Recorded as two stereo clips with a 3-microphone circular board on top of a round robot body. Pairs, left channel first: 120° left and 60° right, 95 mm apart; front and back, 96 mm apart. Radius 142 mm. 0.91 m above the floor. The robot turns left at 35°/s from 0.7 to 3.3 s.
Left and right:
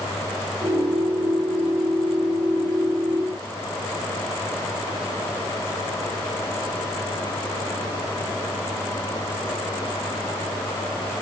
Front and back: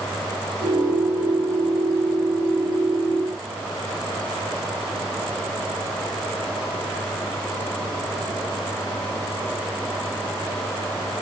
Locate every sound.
Only background noise.